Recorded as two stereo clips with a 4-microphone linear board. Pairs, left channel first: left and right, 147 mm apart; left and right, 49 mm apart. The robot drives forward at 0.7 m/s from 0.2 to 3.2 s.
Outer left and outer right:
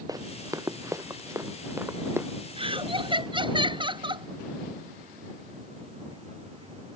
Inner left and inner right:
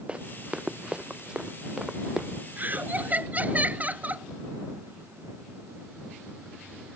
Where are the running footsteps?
25° right (ahead or behind); by 2.3 s 15° right (ahead or behind).